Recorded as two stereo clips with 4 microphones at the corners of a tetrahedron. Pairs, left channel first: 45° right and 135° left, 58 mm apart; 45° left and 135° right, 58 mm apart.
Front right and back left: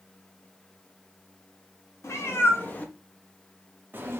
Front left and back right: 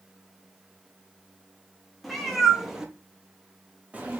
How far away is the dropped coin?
No dropped coin in this recording.